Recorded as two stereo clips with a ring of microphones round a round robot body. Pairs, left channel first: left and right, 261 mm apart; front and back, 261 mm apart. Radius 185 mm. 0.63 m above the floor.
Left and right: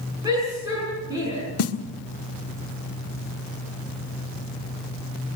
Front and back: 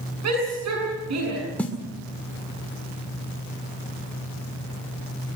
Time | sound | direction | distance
0.2 | a shout | 170° right | 7.5 m
1.6 | a snare drum | 85° left | 1.5 m